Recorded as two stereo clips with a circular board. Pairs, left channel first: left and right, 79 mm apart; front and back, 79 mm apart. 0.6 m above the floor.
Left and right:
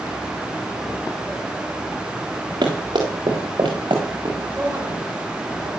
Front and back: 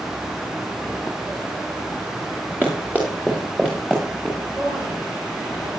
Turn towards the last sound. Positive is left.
turn(degrees=-155)